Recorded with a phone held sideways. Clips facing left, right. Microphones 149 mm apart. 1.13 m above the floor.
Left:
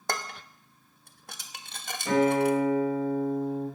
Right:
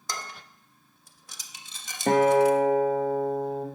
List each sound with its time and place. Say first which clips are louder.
0.1 s dishes clattering: left 5 dB; 60° left (ahead or behind), 1.1 m
2.1 s a guitar: right 4 dB; 55° right (ahead or behind), 1.9 m